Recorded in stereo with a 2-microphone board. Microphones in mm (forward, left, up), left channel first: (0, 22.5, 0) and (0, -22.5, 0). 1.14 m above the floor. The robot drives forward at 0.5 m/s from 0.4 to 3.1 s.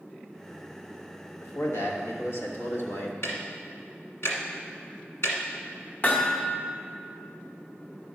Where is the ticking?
70° left (ahead or behind), 1.4 m.